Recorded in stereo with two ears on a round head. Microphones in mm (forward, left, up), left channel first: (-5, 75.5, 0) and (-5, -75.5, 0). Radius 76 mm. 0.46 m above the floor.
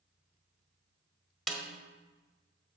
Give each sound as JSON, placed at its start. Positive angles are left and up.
{"t": 1.5, "sound": "a snare drum", "side_deg": 0, "distance_m": 1.1}